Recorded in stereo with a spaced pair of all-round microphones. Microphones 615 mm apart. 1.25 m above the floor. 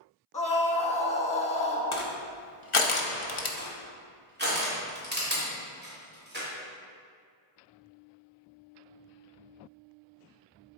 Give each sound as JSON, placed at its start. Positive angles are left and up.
{"t": 0.3, "sound": "a scream", "side_deg": 10, "distance_m": 1.3}
{"t": 1.9, "sound": "crushing", "side_deg": 55, "distance_m": 0.8}
{"t": 3.6, "sound": "crushing", "side_deg": -15, "distance_m": 2.0}